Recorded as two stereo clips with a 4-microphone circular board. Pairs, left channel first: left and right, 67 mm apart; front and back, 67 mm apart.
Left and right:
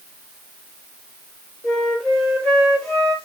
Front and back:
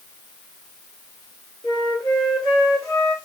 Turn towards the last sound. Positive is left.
turn(degrees=10)